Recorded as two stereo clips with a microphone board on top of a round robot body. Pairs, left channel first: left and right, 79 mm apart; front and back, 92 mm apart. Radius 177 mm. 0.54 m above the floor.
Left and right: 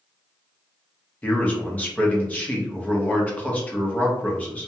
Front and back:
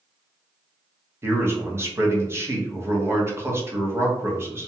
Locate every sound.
1.2 s a man speaking: 145° left, 1.1 m